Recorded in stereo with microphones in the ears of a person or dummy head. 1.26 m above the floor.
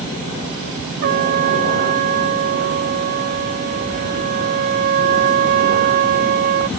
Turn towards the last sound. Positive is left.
turn(degrees=-55)  # may be behind; listen again after turning